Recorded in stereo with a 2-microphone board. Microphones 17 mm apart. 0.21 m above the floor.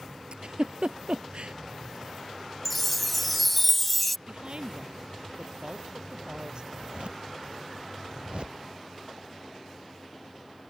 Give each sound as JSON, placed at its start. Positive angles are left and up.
{"t": 0.3, "sound": "a giggle", "side_deg": -65}
{"t": 2.6, "sound": "a chime", "side_deg": 5}
{"t": 4.3, "sound": "a woman speaking", "side_deg": -50}
{"t": 6.7, "sound": "a zipper", "side_deg": -70}